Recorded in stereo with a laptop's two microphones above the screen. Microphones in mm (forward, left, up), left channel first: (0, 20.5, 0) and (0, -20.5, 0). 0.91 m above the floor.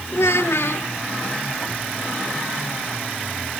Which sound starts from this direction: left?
A child speaking, at 0.1 s.